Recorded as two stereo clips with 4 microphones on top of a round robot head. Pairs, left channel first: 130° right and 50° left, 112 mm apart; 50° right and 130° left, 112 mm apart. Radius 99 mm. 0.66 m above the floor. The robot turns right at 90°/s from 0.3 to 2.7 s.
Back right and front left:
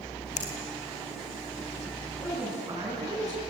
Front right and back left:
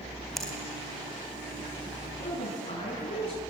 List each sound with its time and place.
0.4 s a finger snap: 135° right, 4 m; by 0.5 s 120° right, 4 m
2.2 s a woman speaking: 55° right, 6.5 m; by 3.4 s 5° right, 6.5 m